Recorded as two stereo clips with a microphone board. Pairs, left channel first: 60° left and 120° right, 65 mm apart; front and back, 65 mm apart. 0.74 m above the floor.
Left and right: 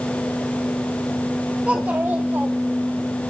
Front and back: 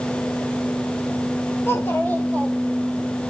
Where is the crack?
I don't hear a crack.